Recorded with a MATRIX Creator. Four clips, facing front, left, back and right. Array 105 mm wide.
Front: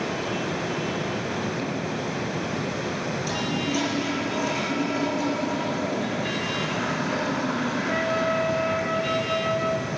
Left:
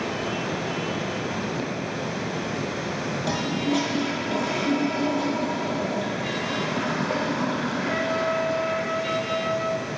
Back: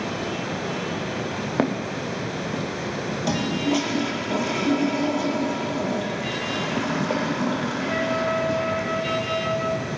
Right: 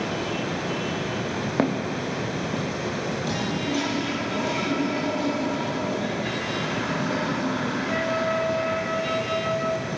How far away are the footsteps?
About 1.4 m.